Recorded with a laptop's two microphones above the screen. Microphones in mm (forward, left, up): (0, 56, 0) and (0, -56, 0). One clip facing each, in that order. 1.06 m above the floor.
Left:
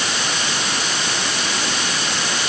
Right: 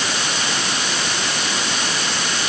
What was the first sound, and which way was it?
Only background noise.